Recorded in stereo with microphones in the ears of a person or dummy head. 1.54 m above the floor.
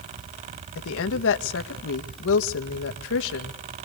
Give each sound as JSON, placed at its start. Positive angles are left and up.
{"t": 0.8, "sound": "a woman speaking", "side_deg": 70, "distance_m": 1.8}